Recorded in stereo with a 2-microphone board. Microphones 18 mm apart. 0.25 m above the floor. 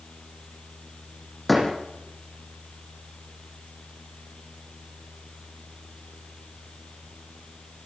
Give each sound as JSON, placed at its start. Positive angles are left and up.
{"t": 1.5, "sound": "a door slam", "side_deg": 0, "distance_m": 7.0}